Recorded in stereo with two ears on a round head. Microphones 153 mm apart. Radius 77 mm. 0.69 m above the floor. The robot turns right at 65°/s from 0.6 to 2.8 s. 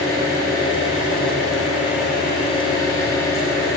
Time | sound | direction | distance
0.0 | an engine running | 20° left | 5.5 m